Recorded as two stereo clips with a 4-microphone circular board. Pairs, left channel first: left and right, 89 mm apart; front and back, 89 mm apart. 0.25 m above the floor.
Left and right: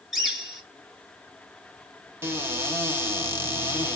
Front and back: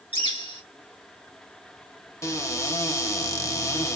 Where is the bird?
10° right, 4.5 m.